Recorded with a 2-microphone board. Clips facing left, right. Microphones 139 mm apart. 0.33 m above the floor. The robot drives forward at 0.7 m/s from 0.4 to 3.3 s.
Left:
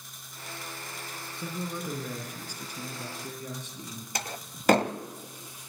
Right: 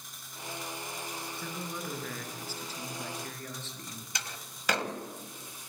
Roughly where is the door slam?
Left.